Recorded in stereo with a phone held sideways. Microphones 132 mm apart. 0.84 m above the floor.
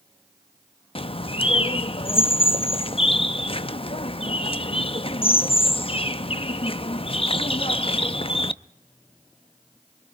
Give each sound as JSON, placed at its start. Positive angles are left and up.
{"t": 0.9, "sound": "a bird", "side_deg": 45, "distance_m": 0.6}